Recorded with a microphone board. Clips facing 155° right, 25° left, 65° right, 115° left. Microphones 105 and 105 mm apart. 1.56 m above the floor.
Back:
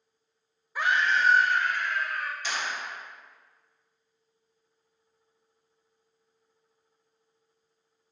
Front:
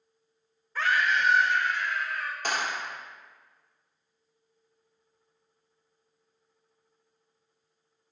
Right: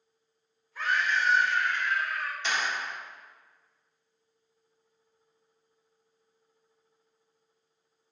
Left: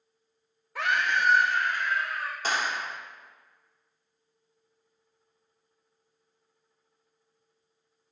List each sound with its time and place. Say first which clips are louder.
0.8 s a scream: back 1 dB, left 2 dB; 125° left, 1.1 m; by 2.3 s 165° left, 2.5 m
2.4 s a clap: front 2 dB, left 3 dB; 60° left, 1.1 m